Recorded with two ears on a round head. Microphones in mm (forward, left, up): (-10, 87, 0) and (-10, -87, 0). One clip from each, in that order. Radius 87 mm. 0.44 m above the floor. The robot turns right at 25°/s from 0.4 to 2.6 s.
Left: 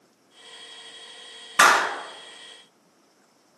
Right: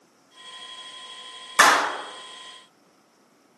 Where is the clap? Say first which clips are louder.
Even; 40° right (ahead or behind), 1.2 m; by 1.9 s 35° right (ahead or behind), 1.2 m.